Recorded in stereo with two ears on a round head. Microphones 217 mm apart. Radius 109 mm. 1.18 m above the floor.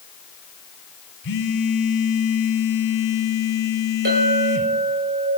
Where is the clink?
45° right (ahead or behind), 4.5 m.